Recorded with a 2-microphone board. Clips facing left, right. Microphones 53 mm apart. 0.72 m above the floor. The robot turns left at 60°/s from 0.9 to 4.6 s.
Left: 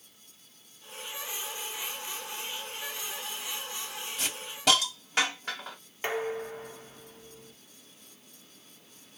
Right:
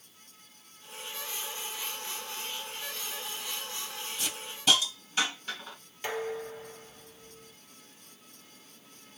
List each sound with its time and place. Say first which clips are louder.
4.2 s a hiss: left 6 dB; 80° left, 1.5 m; by 5.8 s 70° left (ahead or behind), 1.5 m
6.0 s dishes clattering: left 2 dB; 35° left (ahead or behind), 0.8 m